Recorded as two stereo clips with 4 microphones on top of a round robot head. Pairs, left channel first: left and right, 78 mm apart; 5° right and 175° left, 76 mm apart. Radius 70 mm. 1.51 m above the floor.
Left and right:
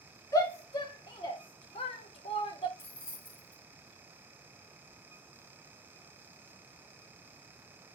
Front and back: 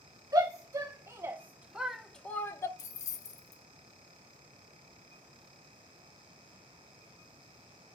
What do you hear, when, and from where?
0.3 s a shout: 130° left, 1.7 m; by 2.7 s 45° left, 0.9 m
2.8 s keys jangling: 20° left, 0.6 m